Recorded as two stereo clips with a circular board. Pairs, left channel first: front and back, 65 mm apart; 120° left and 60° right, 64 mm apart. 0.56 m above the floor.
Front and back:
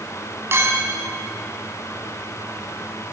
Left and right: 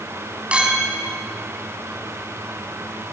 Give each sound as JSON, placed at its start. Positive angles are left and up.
{"t": 0.5, "sound": "a clink", "azimuth_deg": -130, "distance_m": 3.5}